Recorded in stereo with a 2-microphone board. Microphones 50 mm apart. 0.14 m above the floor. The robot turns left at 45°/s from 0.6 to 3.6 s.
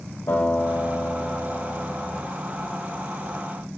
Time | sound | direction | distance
0.3 | a guitar | 70° left | 5.5 m